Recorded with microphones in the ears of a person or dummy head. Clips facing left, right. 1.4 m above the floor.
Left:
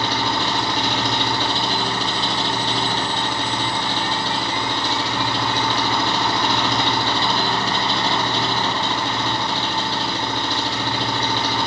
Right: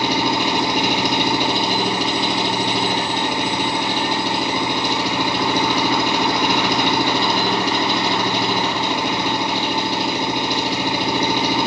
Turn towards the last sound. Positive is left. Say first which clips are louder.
# right 4 dB
turn(degrees=-20)  # may be behind; listen again after turning